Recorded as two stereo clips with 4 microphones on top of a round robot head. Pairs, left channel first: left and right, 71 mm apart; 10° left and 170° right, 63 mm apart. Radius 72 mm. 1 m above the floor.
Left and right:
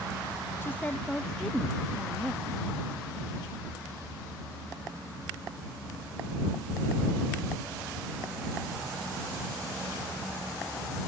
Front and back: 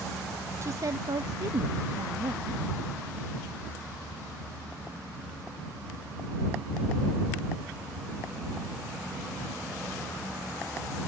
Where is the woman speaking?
145° left; by 2.6 s 160° right.